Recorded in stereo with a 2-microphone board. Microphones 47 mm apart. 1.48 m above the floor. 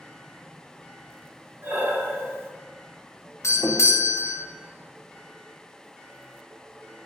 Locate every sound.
1.6 s breathing: 50° right (ahead or behind), 0.9 m
3.4 s a doorbell: 80° left, 0.6 m